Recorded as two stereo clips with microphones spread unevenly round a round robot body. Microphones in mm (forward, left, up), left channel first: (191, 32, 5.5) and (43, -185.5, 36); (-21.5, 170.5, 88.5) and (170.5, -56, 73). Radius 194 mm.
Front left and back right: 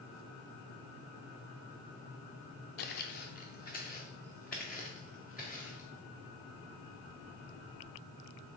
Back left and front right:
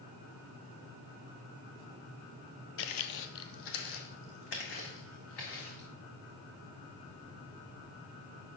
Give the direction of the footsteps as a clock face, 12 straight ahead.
9 o'clock.